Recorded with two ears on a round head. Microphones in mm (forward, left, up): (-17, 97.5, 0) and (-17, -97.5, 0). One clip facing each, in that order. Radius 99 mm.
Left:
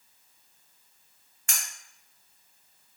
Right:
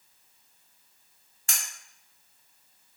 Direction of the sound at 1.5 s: 30° right (ahead or behind).